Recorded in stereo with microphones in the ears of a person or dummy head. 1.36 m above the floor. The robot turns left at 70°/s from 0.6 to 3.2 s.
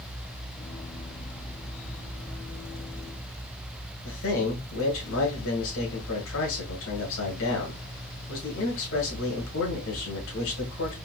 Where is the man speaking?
80° left, 1.4 m.